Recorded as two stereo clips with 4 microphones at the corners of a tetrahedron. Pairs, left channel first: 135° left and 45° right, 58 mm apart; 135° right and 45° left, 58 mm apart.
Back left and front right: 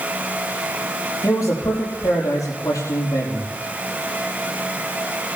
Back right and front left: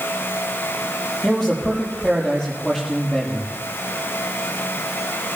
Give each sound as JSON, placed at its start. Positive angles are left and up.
{"t": 1.2, "sound": "a man speaking", "azimuth_deg": 145, "distance_m": 5.0}